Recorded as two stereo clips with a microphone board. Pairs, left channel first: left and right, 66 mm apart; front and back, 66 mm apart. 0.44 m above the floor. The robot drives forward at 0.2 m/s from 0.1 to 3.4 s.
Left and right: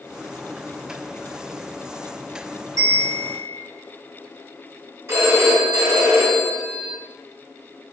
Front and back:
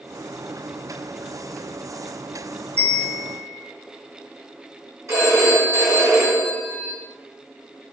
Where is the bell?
60° right, 1.0 m; by 3.6 s 70° right, 0.9 m.